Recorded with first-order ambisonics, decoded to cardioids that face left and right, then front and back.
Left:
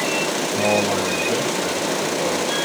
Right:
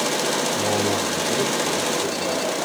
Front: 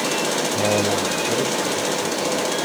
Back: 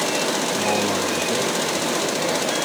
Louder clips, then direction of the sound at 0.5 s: Left 3 dB, front 1 dB; 55° left.